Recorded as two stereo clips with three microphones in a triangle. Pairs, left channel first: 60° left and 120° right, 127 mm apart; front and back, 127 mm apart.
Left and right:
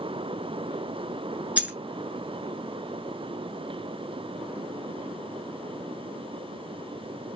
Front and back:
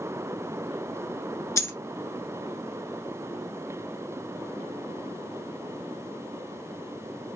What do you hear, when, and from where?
1.6 s a dropped coin: 45° right, 0.7 m